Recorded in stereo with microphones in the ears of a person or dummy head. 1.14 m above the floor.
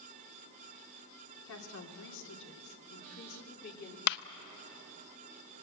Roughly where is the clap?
Left.